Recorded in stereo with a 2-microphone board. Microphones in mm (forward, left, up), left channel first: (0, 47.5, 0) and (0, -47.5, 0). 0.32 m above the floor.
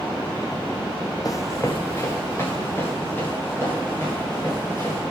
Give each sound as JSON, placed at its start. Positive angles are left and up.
{"t": 1.2, "sound": "running footsteps", "side_deg": 40, "distance_m": 0.7}